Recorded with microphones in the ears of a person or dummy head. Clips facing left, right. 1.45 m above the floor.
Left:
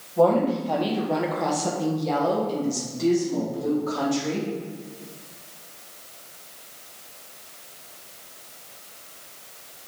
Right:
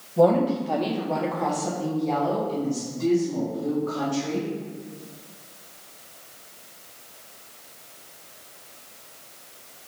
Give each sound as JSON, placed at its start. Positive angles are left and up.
{"t": 0.2, "sound": "a woman speaking", "side_deg": -20, "distance_m": 1.3}